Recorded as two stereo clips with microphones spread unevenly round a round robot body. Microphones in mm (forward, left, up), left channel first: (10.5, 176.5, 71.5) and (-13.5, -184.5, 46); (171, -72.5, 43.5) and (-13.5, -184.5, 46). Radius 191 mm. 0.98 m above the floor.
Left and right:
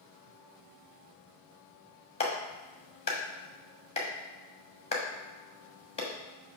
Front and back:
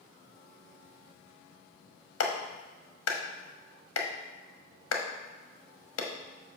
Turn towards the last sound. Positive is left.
turn(degrees=10)